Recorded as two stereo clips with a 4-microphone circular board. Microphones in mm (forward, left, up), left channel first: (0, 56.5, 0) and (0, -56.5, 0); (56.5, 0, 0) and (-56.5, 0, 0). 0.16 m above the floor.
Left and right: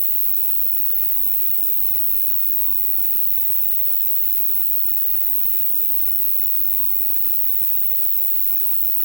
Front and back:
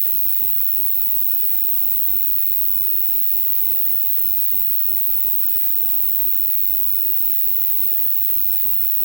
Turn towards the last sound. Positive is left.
turn(degrees=-145)